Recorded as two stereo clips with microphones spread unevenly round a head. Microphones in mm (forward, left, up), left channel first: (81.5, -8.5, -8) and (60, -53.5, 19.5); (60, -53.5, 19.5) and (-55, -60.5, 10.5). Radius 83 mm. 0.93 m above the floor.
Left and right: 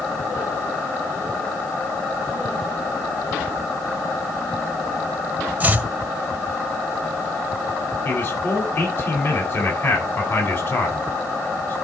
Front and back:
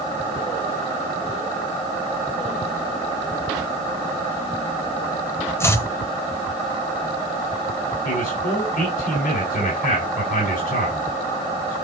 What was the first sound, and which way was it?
Chopping, 65° right.